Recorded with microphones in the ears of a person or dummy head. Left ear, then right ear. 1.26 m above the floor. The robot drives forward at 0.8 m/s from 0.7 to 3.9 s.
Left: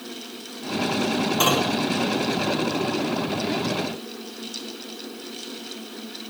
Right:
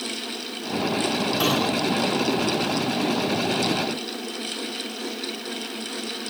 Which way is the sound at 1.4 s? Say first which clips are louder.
Left 3 dB; 25° left (ahead or behind).